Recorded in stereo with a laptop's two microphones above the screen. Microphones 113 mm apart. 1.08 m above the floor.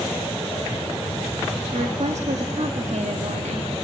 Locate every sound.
1.7 s a woman speaking: 80° right, 1.9 m